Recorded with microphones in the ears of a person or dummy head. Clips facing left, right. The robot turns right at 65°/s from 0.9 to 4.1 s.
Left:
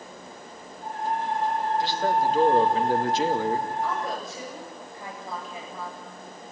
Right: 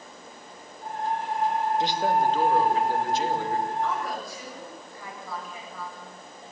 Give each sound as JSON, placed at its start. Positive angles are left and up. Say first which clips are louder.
{"t": 1.8, "sound": "a man speaking", "louder": "right 1 dB", "azimuth_deg": -25, "distance_m": 2.5}
{"t": 3.8, "sound": "a woman speaking", "louder": "even", "side_deg": 5, "distance_m": 8.5}